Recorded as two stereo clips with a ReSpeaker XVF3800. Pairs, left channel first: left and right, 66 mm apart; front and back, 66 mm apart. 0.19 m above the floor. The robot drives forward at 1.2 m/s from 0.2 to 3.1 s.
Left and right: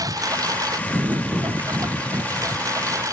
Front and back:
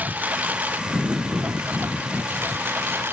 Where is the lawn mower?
115° right; by 3.1 s 125° right.